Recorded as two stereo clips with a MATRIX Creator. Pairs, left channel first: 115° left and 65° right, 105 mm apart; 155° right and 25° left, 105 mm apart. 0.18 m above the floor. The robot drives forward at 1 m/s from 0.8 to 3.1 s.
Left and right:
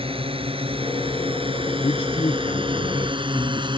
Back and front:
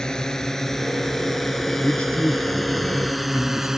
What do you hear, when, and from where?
0.0 s a drone: 75° right; by 3.8 s 60° right
1.8 s a man speaking: 120° left; by 3.7 s 140° left